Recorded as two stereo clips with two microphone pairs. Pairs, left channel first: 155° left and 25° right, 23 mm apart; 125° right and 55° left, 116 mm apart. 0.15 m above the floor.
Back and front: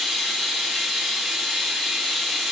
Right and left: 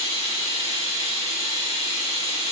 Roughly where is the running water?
Behind right.